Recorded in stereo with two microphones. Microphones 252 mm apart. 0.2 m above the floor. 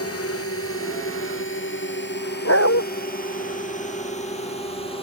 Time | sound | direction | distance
0.0 | a drone | 65° left (ahead or behind) | ?
2.5 | a dog barking | 65° left (ahead or behind) | ?